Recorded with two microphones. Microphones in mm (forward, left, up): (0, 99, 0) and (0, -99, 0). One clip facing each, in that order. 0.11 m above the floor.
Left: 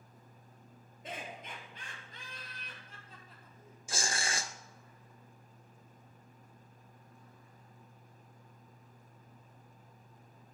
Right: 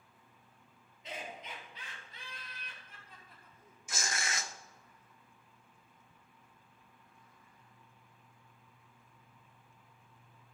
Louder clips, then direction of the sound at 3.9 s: Left 2 dB; 30° left (ahead or behind).